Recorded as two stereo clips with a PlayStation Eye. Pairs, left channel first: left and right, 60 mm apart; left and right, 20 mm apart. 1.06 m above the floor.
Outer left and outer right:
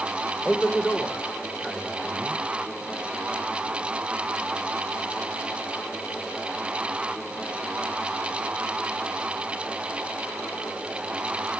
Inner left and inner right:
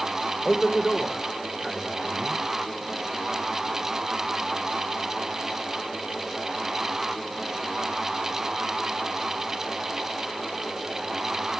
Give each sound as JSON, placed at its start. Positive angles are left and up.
{"t": 0.5, "sound": "a man speaking", "side_deg": 20, "distance_m": 5.0}